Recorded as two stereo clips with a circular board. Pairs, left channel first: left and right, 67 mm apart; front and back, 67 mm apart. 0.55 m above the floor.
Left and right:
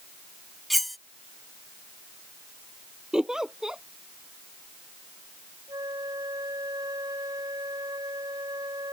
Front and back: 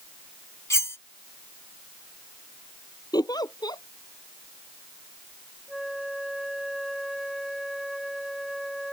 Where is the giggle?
10° right.